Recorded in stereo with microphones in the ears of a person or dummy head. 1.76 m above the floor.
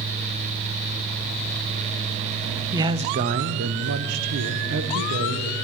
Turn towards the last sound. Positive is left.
turn(degrees=-75)  # may be behind; listen again after turning